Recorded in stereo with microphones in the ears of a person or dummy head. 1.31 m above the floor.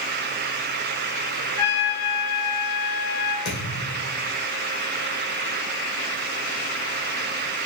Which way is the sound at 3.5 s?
70° left (ahead or behind).